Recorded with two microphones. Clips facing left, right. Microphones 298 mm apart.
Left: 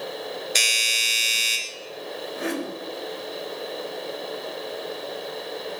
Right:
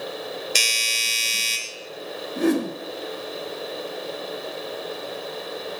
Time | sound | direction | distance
0.6 | a doorbell | 35° right (ahead or behind) | 2.5 m
2.4 | a whoosh | 50° right (ahead or behind) | 1.7 m